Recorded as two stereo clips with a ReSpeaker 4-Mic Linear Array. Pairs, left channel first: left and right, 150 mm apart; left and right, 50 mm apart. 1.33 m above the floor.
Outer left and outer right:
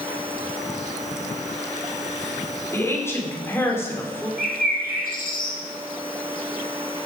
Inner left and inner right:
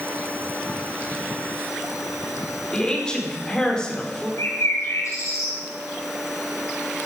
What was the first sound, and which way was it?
A woman speaking, 15° left (ahead or behind).